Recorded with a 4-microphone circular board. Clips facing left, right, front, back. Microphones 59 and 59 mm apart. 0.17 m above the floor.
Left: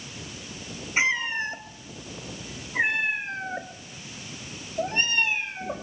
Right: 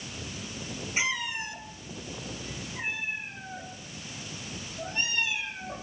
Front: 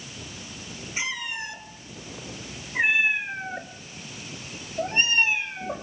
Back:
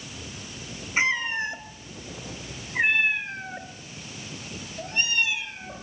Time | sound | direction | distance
1.0 | a cat meowing | 140° left | 1.5 m